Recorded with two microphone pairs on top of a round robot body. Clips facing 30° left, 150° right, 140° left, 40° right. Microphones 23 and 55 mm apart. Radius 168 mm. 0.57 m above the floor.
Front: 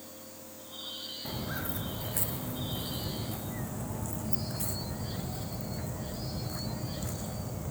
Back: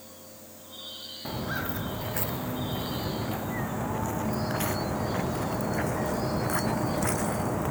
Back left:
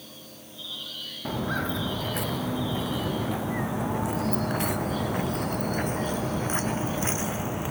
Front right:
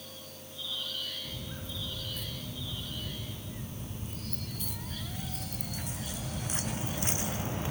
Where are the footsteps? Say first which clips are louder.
Back 7 dB, back left 14 dB; 135° left; by 7.7 s 145° right.